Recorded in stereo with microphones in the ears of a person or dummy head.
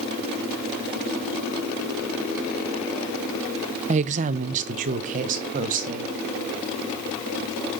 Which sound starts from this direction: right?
A woman speaking, at 3.9 s.